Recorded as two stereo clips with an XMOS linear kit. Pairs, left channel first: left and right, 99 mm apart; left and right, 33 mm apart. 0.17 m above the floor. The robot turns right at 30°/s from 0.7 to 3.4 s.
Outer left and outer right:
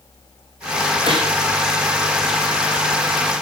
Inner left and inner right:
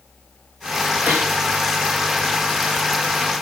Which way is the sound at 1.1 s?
70° right (ahead or behind).